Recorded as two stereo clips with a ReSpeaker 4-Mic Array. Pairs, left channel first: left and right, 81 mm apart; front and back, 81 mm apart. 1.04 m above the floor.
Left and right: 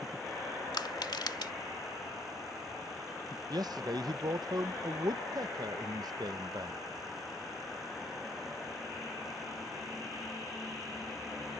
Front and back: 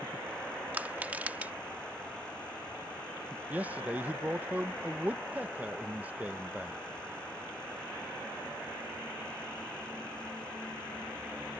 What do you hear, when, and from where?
0.7 s crushing: 110° left
3.5 s a man speaking: 110° right